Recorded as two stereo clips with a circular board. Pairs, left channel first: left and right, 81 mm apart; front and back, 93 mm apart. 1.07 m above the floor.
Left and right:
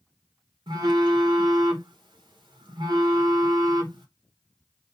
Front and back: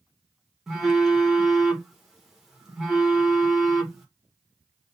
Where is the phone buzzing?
95° right, 1.2 m.